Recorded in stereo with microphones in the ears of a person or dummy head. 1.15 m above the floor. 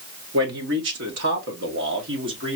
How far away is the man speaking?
About 1.3 m.